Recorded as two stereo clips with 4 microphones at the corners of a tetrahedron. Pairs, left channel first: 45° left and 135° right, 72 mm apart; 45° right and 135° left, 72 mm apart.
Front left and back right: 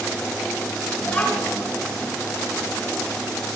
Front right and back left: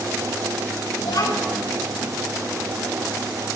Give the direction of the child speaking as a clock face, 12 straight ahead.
1 o'clock.